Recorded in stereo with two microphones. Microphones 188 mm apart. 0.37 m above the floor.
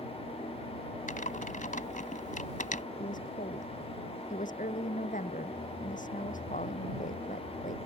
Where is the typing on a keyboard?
45° left (ahead or behind).